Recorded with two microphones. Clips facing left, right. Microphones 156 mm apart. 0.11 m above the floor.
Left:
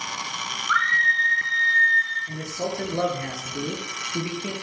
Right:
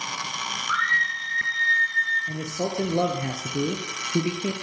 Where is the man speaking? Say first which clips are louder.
Right 1 dB; 25° right (ahead or behind), 1.7 m.